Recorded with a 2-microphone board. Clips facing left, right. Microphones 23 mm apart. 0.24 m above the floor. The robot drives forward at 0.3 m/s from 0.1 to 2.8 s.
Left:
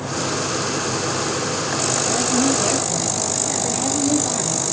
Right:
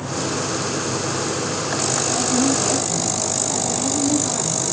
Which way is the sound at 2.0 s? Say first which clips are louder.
Even; 50° left (ahead or behind).